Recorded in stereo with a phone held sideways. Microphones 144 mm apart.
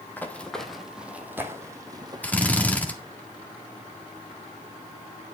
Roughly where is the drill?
Centre.